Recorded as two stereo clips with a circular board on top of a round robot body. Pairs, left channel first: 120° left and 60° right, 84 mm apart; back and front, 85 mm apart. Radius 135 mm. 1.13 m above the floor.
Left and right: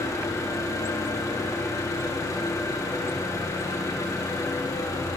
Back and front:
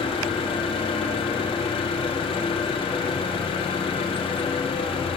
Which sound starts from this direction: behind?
An engine running, at 0.0 s.